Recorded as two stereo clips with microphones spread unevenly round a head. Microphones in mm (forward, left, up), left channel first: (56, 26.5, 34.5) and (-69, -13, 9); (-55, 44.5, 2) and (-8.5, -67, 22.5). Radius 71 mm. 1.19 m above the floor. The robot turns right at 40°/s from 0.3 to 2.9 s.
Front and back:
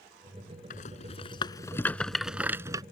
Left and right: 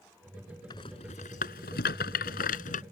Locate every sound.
0.7 s a rattle: 45° left; by 2.8 s 130° left